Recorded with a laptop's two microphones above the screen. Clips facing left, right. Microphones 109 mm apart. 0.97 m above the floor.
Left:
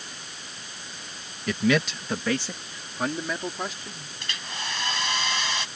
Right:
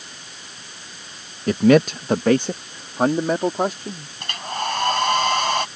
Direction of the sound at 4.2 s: 55° right (ahead or behind).